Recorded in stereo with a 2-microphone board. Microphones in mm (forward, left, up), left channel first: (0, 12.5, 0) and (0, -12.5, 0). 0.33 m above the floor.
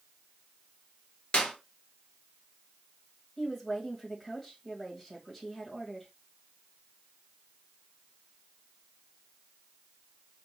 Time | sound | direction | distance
1.3 | a clap | 45° left (ahead or behind) | 1.6 m
3.4 | a woman speaking | 10° left (ahead or behind) | 1.8 m